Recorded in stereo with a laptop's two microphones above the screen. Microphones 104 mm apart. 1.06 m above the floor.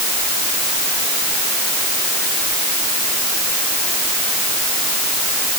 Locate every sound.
Only background noise.